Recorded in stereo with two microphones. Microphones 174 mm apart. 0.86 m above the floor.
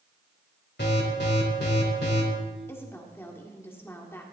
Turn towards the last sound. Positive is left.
turn(degrees=15)  # may be behind; listen again after turning